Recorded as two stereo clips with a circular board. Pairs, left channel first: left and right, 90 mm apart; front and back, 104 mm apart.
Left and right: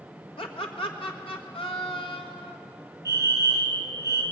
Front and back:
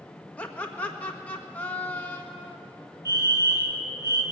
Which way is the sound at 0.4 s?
75° left.